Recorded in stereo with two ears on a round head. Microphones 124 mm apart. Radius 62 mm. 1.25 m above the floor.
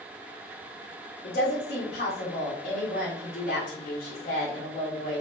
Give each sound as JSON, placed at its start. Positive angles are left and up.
{"t": 1.2, "sound": "a woman speaking", "side_deg": 75, "distance_m": 0.9}